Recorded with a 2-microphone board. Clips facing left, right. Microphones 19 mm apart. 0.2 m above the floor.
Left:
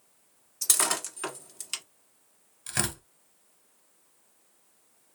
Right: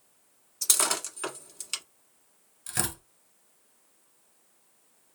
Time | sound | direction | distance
0.6 | breaking glass | centre (ahead or behind) | 1.3 m
2.7 | tearing paper | 10° left (ahead or behind) | 1.1 m